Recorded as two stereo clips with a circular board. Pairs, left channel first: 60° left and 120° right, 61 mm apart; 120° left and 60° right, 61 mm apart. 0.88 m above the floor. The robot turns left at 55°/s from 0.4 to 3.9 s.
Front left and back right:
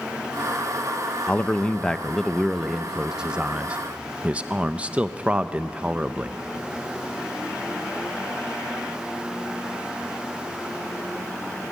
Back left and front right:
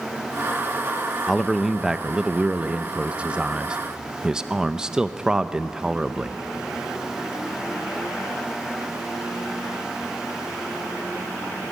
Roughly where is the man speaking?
Ahead left.